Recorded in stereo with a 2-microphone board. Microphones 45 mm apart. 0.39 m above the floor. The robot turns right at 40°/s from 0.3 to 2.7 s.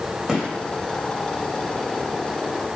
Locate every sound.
0.3 s a gunshot: 15° right (ahead or behind), 1.8 m; by 0.5 s 20° right (ahead or behind), 1.8 m